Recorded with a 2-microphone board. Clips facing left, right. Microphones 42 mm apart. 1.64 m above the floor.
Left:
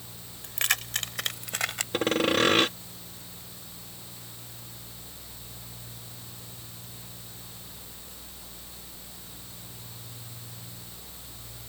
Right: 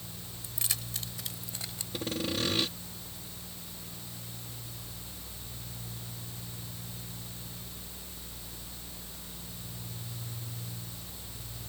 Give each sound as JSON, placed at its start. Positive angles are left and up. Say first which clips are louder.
{"t": 0.4, "sound": "keys jangling", "louder": "left 12 dB", "side_deg": 60}
{"t": 1.9, "sound": "sawing", "louder": "left 9 dB", "side_deg": 70}